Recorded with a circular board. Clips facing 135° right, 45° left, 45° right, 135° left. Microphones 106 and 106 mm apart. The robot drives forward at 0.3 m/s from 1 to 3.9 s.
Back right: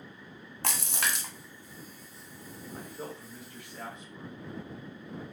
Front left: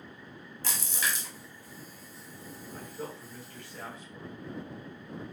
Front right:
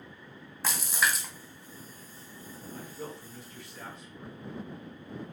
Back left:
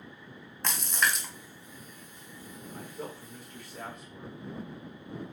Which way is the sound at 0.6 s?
130° right.